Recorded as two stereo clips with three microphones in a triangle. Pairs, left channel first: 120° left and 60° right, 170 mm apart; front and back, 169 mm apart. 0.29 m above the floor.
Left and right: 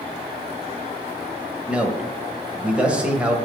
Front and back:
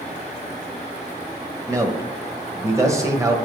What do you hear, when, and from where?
1.7 s a man speaking: 135° right, 1.2 m